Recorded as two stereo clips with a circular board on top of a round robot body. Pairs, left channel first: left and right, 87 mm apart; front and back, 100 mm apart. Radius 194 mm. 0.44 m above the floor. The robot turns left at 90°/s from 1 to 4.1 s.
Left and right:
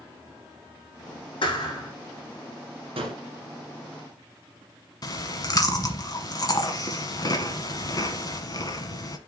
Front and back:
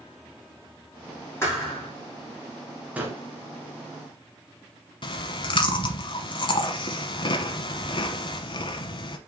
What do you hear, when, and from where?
1.4 s a thud: 65° left, 5.5 m; by 1.9 s 20° left, 5.5 m
3.0 s a gunshot: 100° right, 1.7 m; by 3.2 s 125° right, 1.7 m
5.0 s chewing: 40° left, 1.0 m